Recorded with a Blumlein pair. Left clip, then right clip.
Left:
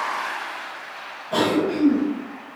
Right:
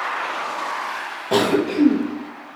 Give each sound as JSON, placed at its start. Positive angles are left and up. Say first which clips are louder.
{"t": 1.3, "sound": "a cough", "louder": "right 2 dB", "azimuth_deg": -50, "distance_m": 1.1}